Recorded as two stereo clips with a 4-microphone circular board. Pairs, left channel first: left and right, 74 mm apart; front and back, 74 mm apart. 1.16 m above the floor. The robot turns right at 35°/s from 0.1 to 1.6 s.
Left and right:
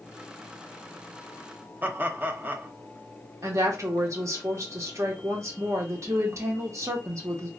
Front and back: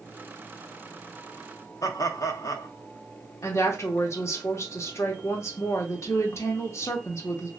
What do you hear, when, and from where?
1.8 s laughter: 30° right, 0.6 m
3.4 s a woman speaking: 50° right, 1.0 m